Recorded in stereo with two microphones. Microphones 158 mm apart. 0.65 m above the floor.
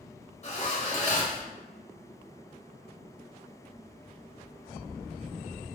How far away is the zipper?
About 1.0 m.